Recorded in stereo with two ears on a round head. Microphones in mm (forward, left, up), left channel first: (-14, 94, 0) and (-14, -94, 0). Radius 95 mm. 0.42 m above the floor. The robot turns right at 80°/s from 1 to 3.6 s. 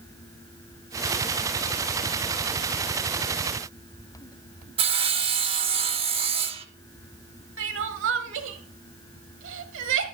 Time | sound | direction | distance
4.8 | sawing | 30° right (ahead or behind) | 0.9 m
7.6 | crying | 60° right (ahead or behind) | 1.2 m